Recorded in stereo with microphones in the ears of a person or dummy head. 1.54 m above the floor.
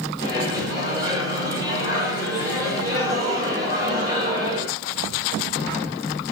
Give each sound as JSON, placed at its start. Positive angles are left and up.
{"t": 0.2, "sound": "a microwave", "side_deg": -15, "distance_m": 2.5}